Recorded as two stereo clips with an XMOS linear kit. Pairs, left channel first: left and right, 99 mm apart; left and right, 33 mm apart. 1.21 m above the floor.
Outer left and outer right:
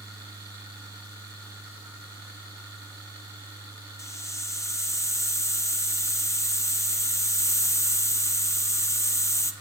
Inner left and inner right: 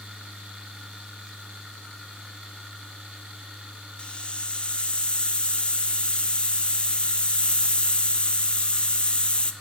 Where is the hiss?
30° left (ahead or behind), 0.8 m.